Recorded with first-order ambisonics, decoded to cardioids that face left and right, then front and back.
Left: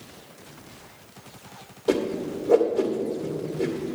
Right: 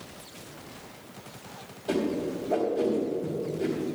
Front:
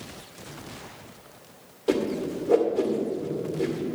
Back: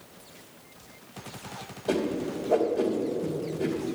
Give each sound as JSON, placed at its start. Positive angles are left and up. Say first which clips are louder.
{"t": 1.9, "sound": "a whoosh", "louder": "left 4 dB, front 2 dB", "azimuth_deg": 45, "distance_m": 2.0}